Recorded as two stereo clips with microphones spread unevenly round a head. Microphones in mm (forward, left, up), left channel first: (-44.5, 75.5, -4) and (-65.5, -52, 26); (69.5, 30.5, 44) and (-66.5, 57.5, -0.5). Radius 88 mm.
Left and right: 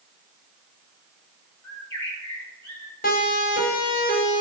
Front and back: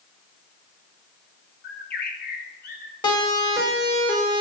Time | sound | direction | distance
1.6 | a bird | 5° left | 1.8 m
3.0 | a siren | 45° left | 6.5 m